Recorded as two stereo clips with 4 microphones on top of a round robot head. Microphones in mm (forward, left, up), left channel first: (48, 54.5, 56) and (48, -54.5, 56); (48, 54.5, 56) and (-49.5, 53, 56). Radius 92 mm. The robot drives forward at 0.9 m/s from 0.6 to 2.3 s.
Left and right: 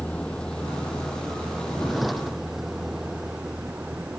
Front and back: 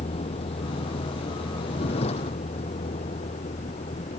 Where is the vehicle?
10° left; by 4.2 s 10° right.